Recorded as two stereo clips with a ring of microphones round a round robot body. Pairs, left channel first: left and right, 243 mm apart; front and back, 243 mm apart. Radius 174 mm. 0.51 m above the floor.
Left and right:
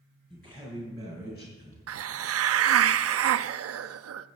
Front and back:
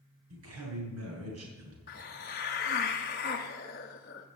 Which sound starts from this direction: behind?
A man speaking, at 0.3 s.